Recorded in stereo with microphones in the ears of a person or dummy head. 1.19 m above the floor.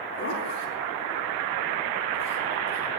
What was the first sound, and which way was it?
A zipper, 45° left (ahead or behind).